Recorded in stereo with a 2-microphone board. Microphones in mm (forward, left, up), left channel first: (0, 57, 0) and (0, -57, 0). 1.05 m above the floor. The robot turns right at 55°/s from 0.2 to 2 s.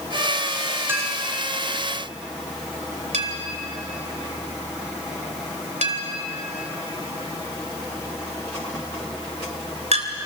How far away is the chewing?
I don't hear chewing.